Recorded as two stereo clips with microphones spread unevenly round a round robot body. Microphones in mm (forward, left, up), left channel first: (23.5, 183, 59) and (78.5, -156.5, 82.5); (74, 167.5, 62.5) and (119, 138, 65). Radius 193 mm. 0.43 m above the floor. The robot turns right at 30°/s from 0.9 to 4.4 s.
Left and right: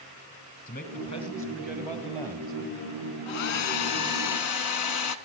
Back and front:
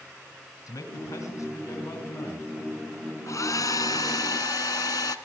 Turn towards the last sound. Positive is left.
turn(degrees=150)